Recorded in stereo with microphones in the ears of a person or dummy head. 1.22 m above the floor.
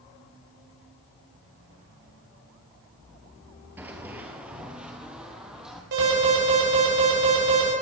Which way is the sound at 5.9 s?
60° right (ahead or behind).